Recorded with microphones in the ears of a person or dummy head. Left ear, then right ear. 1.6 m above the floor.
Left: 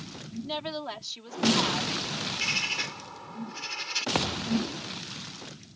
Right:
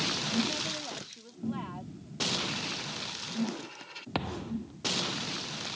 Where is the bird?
80° left.